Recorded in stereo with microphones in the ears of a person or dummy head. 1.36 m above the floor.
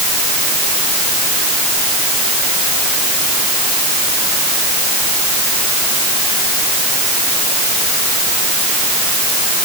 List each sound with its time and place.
Only background noise.